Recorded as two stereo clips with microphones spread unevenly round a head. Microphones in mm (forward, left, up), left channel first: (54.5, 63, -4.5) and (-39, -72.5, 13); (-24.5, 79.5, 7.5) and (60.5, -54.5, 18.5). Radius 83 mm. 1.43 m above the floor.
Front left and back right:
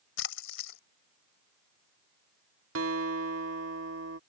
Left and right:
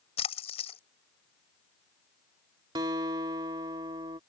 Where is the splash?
70° left.